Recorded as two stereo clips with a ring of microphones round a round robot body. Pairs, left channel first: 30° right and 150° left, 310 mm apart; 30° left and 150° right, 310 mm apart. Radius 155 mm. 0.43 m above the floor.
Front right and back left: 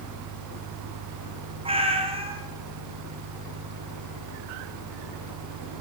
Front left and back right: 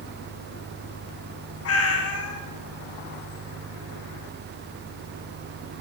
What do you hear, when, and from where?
1.6 s a cat meowing: 75° left, 1.6 m